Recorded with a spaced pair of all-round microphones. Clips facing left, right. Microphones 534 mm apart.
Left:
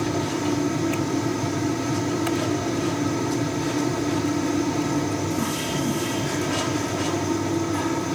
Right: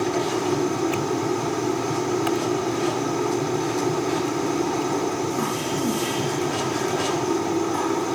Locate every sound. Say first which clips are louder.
0.0 s a fan: right 1 dB; 45° left (ahead or behind)